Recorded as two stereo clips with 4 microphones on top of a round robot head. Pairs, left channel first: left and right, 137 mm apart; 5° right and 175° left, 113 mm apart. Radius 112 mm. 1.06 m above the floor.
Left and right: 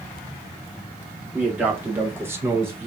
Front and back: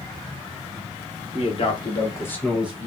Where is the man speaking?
10° right, 1.4 m; by 2.9 s 145° right, 0.8 m.